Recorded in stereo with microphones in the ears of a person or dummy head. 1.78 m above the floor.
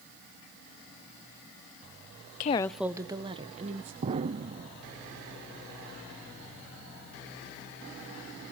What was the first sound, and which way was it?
A woman speaking, 45° left (ahead or behind).